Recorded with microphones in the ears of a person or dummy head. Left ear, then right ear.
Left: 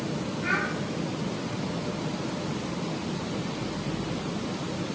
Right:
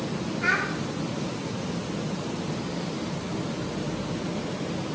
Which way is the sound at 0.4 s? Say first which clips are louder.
Right 3 dB; 75° right (ahead or behind).